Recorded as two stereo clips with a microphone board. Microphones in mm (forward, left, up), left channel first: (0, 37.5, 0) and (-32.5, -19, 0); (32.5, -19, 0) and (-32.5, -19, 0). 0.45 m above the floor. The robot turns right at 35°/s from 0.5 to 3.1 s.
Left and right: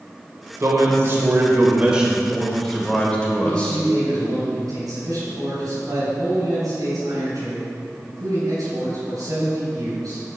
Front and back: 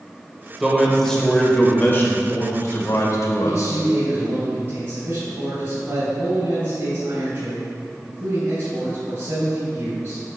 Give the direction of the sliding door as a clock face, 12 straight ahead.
I don't hear a sliding door.